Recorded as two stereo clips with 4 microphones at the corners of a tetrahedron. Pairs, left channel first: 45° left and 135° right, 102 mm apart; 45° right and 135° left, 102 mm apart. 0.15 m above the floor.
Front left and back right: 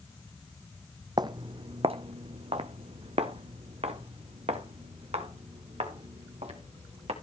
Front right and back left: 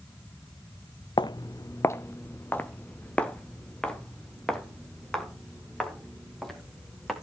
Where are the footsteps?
90° right, 0.6 m; by 7.1 s 135° right, 3.5 m.